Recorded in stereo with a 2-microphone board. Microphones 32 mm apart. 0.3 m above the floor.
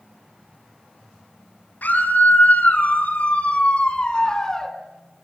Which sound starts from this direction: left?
A scream, at 1.8 s.